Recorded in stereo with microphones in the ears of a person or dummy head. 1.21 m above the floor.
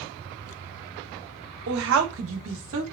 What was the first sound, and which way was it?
A woman speaking, 60° right (ahead or behind).